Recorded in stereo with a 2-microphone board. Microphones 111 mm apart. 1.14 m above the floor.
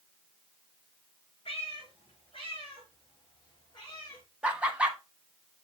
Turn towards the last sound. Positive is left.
turn(degrees=-10)  # may be behind; listen again after turning